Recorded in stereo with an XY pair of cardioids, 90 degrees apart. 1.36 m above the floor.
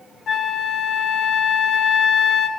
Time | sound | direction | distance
0.3 | a flute | 60° left | 0.5 m